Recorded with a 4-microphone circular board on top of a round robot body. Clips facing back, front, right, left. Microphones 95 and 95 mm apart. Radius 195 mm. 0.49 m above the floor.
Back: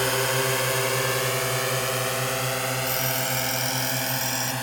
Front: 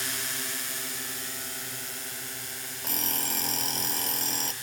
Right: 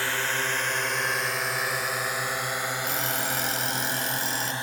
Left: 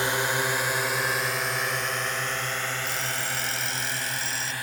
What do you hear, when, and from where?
0.0 s a drone: 160° left; by 4.6 s 155° right
2.8 s an alarm clock: 50° right